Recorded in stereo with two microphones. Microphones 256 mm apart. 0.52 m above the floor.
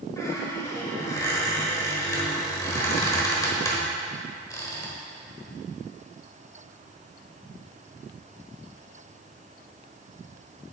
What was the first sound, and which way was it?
A squeak, 15° left (ahead or behind).